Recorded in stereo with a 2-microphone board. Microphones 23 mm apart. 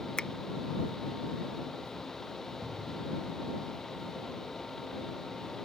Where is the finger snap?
45° left (ahead or behind).